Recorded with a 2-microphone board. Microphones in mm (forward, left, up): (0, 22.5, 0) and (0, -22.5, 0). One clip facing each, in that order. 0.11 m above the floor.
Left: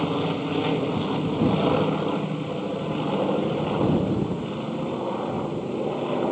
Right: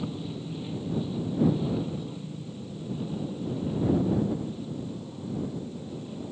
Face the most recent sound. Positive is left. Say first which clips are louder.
# left 10 dB
turn(degrees=65)  # may be behind; listen again after turning